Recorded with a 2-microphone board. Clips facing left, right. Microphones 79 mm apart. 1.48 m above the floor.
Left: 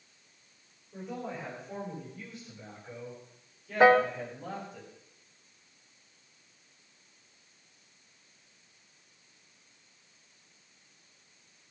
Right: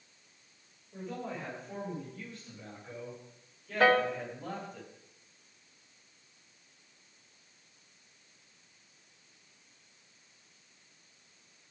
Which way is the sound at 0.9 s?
5° left (ahead or behind).